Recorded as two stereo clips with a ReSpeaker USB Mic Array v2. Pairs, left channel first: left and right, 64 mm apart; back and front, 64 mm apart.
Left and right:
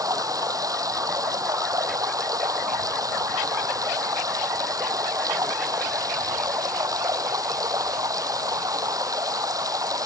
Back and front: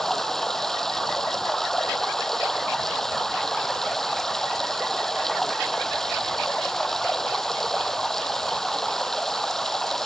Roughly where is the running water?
Right.